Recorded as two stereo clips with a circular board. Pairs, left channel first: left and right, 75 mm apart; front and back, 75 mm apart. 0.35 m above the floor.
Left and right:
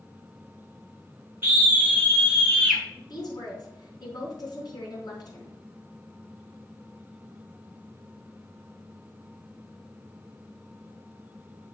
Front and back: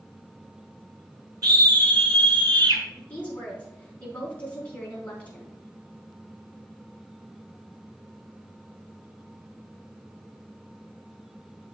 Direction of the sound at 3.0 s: 70° left.